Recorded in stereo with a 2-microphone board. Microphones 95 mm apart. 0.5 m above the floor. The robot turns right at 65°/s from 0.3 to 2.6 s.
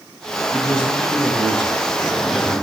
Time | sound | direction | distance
0.5 | a man speaking | 145° right | 4.5 m